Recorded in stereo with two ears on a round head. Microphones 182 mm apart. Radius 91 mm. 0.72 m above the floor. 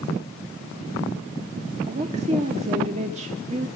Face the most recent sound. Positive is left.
turn(degrees=-35)  # may be behind; listen again after turning